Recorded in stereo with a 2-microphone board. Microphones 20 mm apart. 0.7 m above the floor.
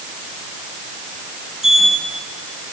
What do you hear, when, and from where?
1.6 s a sliding door: 25° right (ahead or behind), 4.5 m